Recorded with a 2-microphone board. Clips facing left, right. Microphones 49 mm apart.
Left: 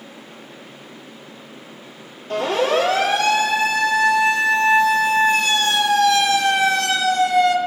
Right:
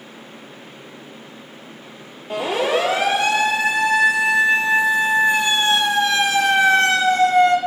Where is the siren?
15° right (ahead or behind), 6 m; by 7.6 s 35° right (ahead or behind), 2 m.